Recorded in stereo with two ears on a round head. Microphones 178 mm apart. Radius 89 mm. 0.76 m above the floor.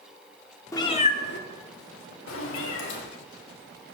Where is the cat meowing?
15° left (ahead or behind), 0.8 m; by 3.0 s 65° left (ahead or behind), 1.9 m.